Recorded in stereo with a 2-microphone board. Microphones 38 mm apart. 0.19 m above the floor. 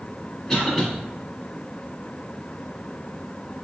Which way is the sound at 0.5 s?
15° left (ahead or behind).